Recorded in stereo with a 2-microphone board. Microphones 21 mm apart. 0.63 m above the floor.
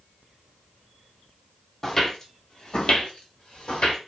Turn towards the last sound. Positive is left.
turn(degrees=50)  # may be behind; listen again after turning